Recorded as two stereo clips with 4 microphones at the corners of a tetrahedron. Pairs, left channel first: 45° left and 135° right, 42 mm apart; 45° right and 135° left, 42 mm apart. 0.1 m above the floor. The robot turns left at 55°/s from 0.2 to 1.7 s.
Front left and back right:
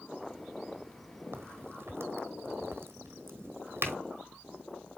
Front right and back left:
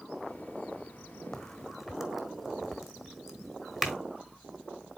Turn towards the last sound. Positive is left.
turn(degrees=-145)